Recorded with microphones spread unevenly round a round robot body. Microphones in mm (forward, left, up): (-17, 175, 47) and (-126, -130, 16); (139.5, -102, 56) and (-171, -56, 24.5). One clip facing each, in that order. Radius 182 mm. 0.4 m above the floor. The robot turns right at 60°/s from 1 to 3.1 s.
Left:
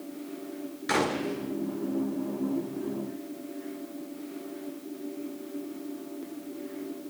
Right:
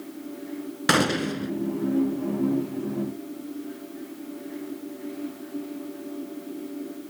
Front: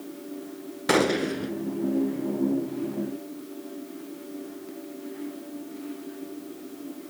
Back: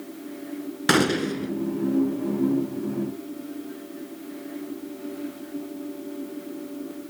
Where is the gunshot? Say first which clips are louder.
Right 4 dB, back 1 dB; 130° right, 0.9 m; by 1.5 s 95° right, 0.9 m.